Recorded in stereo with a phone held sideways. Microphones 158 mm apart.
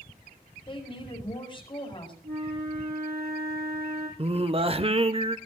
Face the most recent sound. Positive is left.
turn(degrees=-35)  # may be behind; listen again after turning